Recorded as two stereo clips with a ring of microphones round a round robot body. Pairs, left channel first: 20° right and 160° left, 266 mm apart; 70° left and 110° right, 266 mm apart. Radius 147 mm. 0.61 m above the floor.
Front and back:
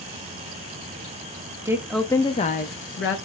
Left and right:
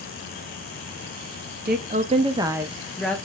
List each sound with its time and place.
1.6 s a woman speaking: 130° right, 0.6 m; by 3.2 s 15° right, 0.8 m